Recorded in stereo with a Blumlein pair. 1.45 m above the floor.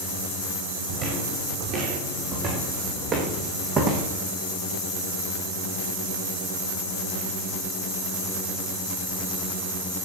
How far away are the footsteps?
About 5.5 m.